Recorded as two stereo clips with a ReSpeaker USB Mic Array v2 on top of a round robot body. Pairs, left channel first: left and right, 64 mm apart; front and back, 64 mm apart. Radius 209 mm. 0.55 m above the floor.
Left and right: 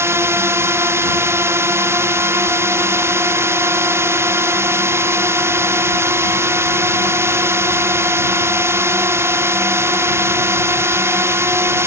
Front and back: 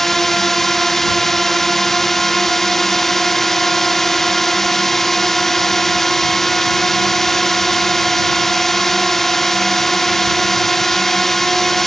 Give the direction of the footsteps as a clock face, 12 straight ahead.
No footsteps in this recording.